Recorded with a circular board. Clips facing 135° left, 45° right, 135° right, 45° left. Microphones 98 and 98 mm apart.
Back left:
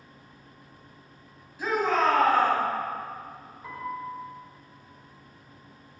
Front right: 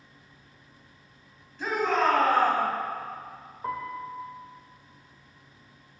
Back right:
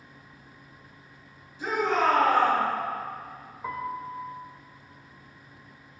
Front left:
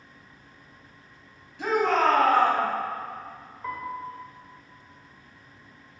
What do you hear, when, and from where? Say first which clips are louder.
1.6 s a shout: back left 1 dB, front left 3 dB; 55° left, 3.5 m
3.6 s a piano: front right 2 dB, even; 60° right, 1.7 m